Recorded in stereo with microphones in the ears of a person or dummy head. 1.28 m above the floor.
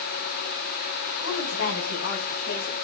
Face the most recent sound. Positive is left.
turn(degrees=85)